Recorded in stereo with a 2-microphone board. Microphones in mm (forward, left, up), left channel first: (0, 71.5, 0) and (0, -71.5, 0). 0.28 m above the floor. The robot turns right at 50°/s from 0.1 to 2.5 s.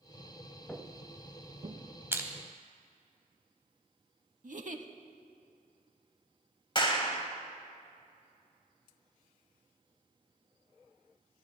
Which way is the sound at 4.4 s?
60° right (ahead or behind).